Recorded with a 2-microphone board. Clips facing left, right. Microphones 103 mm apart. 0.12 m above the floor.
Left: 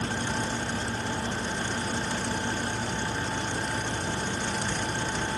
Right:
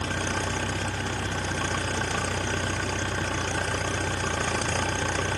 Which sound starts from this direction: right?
An engine running, at 0.0 s.